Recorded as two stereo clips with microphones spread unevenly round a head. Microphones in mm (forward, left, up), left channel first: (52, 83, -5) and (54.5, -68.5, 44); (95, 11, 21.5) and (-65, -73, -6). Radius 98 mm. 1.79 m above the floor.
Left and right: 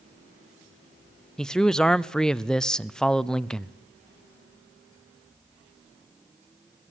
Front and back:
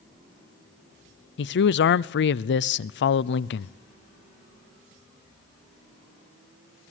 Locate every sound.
1.4 s a man speaking: 5° left, 0.7 m